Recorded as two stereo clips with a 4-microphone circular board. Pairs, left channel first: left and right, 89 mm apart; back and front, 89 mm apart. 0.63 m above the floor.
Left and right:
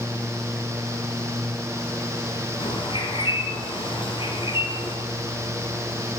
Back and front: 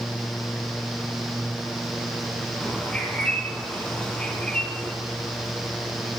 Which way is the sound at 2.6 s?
100° left.